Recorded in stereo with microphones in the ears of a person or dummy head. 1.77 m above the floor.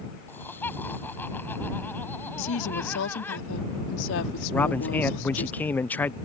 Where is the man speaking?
10° left (ahead or behind).